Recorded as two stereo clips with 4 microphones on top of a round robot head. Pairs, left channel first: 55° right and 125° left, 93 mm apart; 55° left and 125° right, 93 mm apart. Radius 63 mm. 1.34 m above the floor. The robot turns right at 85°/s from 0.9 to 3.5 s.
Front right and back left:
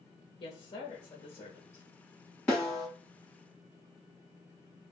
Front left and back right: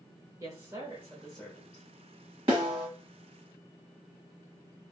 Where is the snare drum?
115° right, 1.3 m; by 2.9 s 80° right, 1.3 m.